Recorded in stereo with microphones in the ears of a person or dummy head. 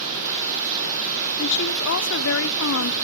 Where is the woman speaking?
70° left (ahead or behind), 1.2 m.